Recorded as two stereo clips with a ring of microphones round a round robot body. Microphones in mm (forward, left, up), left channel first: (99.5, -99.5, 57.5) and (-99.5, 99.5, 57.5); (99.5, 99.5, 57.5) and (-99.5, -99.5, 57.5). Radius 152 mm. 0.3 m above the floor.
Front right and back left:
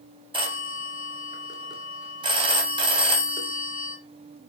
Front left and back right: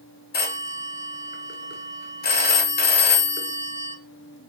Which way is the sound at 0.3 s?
70° left.